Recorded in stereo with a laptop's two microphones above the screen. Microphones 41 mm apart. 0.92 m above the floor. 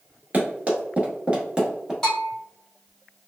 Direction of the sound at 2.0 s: 15° left (ahead or behind).